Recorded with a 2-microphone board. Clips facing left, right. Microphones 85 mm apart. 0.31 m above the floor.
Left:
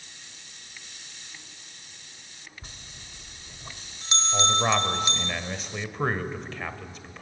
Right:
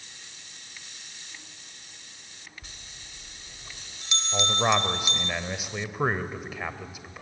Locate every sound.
2.6 s a bell: 35° left (ahead or behind), 0.8 m
4.3 s a man speaking: 10° right (ahead or behind), 1.3 m